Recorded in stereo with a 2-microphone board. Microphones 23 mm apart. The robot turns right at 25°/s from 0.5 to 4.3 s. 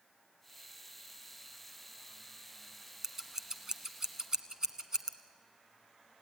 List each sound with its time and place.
3.0 s scissors: 20° right (ahead or behind), 1.2 m; by 5.1 s 30° right (ahead or behind), 1.2 m